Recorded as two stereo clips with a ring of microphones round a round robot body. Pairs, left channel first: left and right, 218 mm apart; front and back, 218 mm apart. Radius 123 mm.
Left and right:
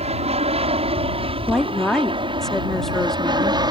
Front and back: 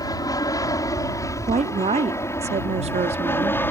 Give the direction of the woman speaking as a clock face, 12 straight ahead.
6 o'clock.